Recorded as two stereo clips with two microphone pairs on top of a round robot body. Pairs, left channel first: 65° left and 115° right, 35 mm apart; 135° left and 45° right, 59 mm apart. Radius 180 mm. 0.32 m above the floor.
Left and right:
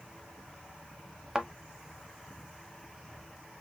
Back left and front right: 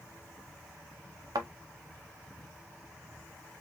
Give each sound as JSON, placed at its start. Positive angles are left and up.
{"t": 1.4, "sound": "a thud", "azimuth_deg": -40, "distance_m": 0.6}